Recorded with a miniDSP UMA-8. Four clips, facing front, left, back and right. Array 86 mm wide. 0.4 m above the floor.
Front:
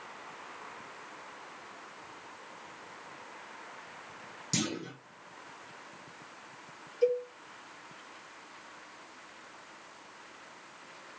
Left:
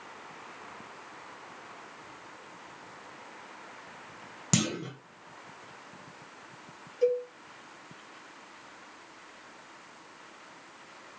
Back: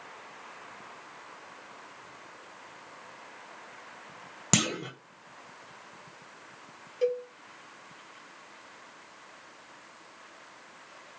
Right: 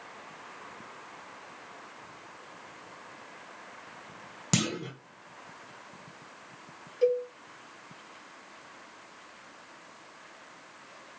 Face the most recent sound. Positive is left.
turn(degrees=-170)